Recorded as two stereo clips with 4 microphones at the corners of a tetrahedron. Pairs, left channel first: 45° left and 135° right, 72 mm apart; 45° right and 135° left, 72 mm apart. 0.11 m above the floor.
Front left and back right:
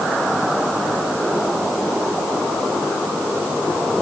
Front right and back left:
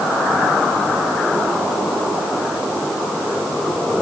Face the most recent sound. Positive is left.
No sound to turn to.